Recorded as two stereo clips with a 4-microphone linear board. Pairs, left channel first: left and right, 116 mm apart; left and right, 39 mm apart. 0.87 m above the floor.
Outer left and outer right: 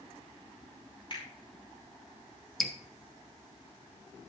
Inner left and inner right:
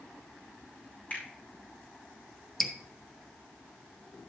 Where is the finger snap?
45° left (ahead or behind), 5 m.